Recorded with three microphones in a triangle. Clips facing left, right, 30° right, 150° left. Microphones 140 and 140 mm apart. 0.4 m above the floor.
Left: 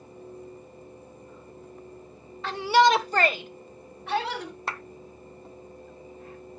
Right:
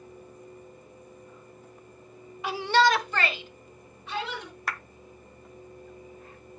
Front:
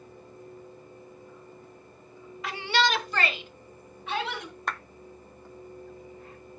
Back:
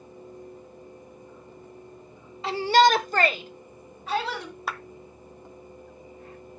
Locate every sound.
2.4 s a shout: 160° right, 1.0 m; by 4.5 s 95° left, 2.5 m
4.7 s a clap: 75° left, 0.6 m